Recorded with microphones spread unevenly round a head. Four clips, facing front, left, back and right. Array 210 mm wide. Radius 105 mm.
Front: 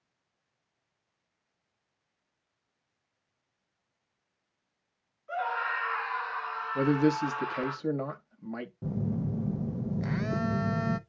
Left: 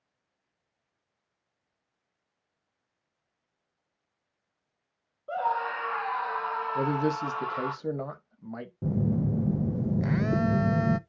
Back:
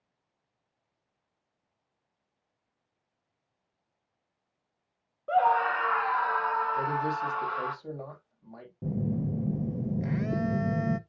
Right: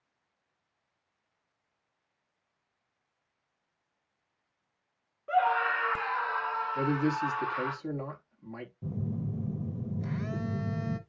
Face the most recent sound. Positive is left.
turn(degrees=75)